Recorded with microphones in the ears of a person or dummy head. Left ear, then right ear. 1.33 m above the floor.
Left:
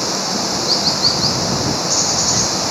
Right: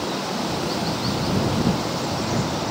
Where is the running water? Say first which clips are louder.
Left 6 dB; 75° left (ahead or behind).